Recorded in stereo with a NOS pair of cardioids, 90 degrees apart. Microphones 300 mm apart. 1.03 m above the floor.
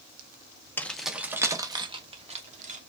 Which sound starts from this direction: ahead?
Keys jangling, at 0.8 s.